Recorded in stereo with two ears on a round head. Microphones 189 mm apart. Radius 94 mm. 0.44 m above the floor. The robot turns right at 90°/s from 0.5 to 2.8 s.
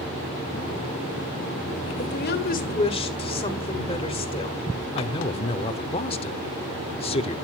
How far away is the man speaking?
About 1.0 m.